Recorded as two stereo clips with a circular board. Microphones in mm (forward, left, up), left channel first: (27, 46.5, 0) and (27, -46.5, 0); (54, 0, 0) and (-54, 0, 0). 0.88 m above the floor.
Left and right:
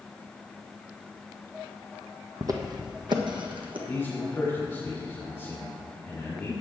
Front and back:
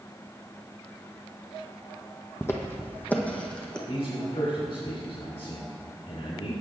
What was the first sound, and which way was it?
Footsteps, 60° right.